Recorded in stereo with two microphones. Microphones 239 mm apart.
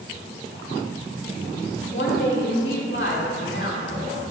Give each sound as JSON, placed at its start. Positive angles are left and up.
{"t": 1.9, "sound": "a woman speaking", "side_deg": 50, "distance_m": 2.0}